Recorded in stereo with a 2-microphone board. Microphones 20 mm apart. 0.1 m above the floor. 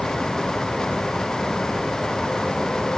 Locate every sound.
Only background noise.